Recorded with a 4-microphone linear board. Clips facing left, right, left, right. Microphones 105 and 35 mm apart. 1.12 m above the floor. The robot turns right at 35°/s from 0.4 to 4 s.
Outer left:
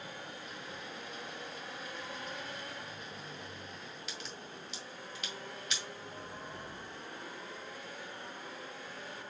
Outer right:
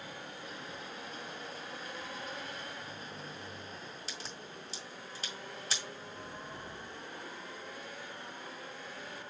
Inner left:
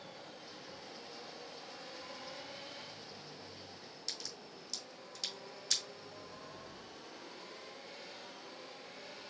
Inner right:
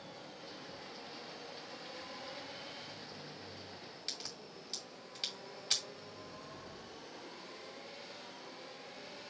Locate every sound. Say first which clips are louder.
4.1 s a crack: even, even; 35° right (ahead or behind), 1.8 m